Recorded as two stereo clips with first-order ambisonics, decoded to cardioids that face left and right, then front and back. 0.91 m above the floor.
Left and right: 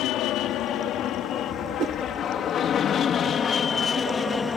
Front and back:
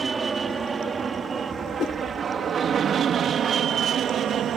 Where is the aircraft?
110° left; by 4.6 s 150° left.